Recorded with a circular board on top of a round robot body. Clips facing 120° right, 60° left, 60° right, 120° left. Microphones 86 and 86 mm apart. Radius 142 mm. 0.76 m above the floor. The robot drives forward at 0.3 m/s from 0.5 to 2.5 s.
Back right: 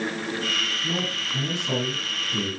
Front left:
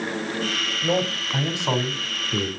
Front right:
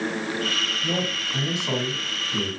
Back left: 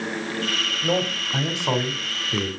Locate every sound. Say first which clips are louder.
0.8 s a man speaking: front left 6 dB, back left 6 dB; 85° left, 3.5 m; by 2.5 s 90° left, 3.5 m